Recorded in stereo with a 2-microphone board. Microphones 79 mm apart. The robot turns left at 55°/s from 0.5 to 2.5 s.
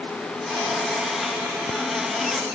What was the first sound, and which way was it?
Only background noise.